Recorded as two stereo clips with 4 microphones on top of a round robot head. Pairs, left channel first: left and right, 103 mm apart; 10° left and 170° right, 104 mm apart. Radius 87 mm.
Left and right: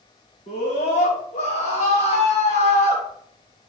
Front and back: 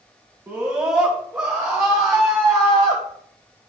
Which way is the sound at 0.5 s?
120° left.